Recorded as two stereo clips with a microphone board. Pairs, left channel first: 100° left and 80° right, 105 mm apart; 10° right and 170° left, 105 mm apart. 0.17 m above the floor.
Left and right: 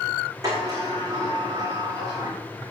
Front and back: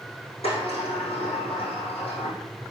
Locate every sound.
0.4 s a sliding door: 25° right, 4.5 m